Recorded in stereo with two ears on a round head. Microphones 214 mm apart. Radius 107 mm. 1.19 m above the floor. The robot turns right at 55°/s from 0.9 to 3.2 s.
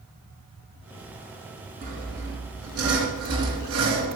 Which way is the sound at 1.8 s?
140° right.